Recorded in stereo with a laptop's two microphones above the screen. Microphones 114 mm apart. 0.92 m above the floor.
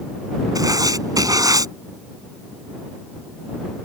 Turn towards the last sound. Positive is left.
turn(degrees=-30)  # may be behind; listen again after turning